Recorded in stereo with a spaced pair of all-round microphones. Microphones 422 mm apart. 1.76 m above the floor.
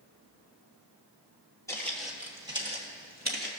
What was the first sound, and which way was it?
Footsteps, 5° left (ahead or behind).